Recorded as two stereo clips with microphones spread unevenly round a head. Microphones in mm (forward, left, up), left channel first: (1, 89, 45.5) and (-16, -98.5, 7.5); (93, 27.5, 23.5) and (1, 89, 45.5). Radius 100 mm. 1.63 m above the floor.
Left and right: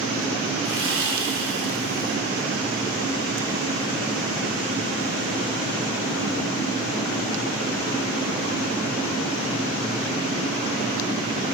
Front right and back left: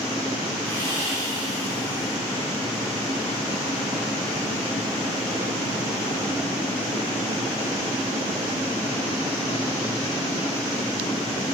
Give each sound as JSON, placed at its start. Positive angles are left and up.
{"t": 0.6, "sound": "sawing", "azimuth_deg": -115, "distance_m": 4.0}